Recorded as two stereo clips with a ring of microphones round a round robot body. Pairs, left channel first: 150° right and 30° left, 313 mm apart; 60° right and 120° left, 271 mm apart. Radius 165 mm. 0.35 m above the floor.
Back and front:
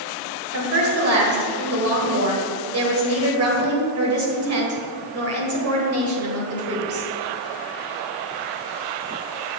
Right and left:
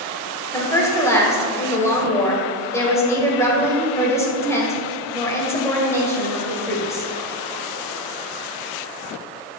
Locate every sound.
0.5 s a woman speaking: 15° left, 2 m